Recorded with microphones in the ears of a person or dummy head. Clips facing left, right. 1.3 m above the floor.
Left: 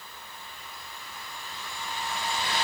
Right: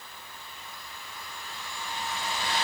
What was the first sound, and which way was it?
Only background noise.